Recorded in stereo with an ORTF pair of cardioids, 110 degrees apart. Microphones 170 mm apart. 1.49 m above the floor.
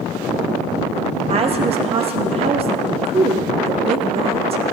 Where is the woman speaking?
35° right, 1.2 m.